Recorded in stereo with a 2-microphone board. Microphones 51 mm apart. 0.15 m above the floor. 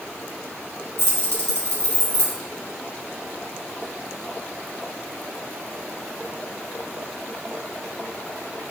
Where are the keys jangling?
60° left (ahead or behind), 1.9 m.